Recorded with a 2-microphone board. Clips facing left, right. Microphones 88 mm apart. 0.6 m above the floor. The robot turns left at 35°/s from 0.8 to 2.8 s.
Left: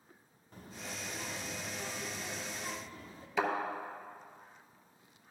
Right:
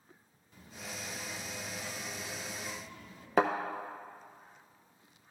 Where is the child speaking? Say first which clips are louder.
Even; 115° left, 0.9 m; by 3.3 s 45° left, 0.9 m.